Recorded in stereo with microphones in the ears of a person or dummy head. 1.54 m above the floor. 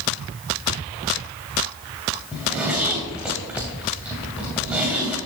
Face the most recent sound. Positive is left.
turn(degrees=-5)  # may be behind; listen again after turning